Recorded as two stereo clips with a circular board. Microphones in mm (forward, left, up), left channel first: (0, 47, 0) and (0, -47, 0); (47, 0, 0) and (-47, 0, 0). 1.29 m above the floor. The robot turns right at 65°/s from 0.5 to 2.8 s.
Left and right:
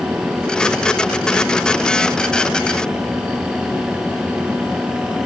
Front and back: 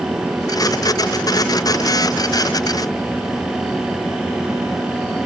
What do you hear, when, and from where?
Only background noise.